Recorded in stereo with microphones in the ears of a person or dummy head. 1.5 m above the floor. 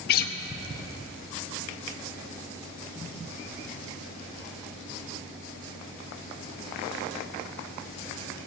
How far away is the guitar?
About 0.7 m.